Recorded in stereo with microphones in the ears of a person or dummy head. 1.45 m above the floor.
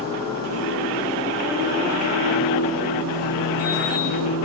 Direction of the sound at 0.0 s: 85° right.